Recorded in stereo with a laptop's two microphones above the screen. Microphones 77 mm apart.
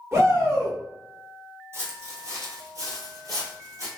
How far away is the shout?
About 1.2 m.